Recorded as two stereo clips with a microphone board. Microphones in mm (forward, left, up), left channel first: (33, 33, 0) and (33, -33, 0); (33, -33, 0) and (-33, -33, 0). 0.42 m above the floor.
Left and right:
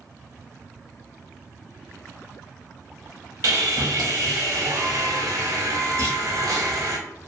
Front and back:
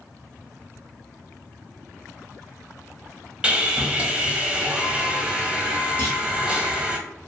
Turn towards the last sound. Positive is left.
turn(degrees=-60)